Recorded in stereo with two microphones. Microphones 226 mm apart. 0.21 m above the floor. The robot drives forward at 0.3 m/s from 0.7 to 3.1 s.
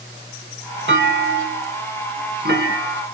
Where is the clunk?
50° right (ahead or behind), 0.8 m; by 3.0 s 40° right (ahead or behind), 1.0 m.